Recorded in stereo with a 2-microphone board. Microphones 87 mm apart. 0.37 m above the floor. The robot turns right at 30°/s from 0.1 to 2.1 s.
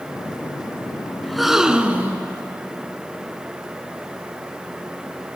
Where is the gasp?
5° left (ahead or behind), 1.6 m; by 2.3 s 20° right (ahead or behind), 1.6 m.